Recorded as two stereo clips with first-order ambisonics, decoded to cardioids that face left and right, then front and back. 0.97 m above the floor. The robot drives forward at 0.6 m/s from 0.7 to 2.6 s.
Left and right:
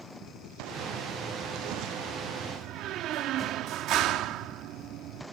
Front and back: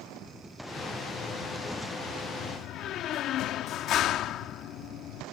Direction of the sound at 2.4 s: 40° right.